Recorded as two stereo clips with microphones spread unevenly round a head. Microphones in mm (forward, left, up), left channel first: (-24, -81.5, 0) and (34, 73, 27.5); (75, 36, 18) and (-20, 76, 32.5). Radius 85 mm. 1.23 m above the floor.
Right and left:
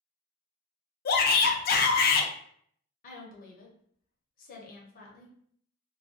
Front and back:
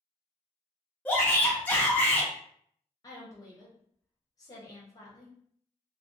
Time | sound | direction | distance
1.1 | a shout | 95° right | 0.5 m
3.0 | a woman speaking | 80° right | 0.8 m